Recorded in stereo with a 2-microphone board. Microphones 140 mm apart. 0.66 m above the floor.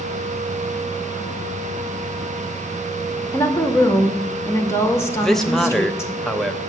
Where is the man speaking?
Centre (ahead or behind), 0.9 m.